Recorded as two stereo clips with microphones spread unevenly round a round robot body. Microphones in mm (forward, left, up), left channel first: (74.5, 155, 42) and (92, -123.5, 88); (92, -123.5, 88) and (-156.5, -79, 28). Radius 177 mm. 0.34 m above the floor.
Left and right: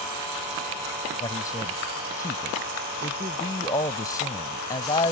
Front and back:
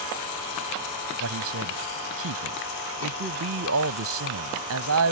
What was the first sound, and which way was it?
A man speaking, 170° left.